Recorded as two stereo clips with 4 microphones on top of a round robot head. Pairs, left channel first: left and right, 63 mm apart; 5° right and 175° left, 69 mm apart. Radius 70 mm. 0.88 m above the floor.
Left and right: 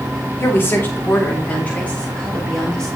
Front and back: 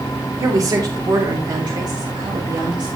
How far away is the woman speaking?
About 3 m.